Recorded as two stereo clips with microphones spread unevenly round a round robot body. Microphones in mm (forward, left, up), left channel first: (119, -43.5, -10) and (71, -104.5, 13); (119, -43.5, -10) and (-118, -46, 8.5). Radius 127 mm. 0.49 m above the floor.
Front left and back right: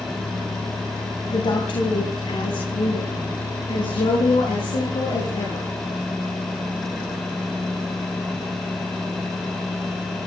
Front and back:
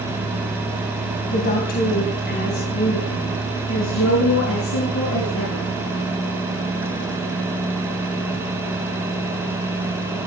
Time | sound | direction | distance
1.3 | a woman speaking | 60° left | 3 m